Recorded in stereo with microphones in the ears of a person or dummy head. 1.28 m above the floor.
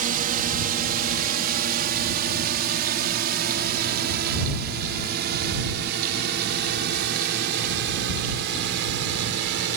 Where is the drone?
45° right (ahead or behind); by 9.8 s 65° right (ahead or behind).